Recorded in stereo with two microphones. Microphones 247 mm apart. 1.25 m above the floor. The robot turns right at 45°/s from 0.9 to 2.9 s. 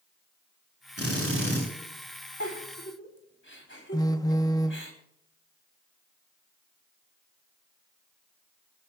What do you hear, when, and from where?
1.0 s a drill: 70° right (ahead or behind), 9 m; by 1.6 s 40° right (ahead or behind), 9 m
2.4 s a giggle: 70° left (ahead or behind), 3.5 m; by 4.9 s 50° left (ahead or behind), 3.5 m
3.9 s a phone buzzing: 15° left (ahead or behind), 0.7 m